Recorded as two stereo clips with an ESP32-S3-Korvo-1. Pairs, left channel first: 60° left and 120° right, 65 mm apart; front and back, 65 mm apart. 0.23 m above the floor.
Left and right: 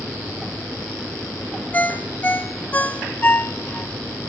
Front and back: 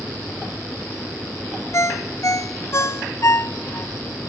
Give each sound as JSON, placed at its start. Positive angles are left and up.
{"t": 1.7, "sound": "a ringtone", "azimuth_deg": 5, "distance_m": 0.8}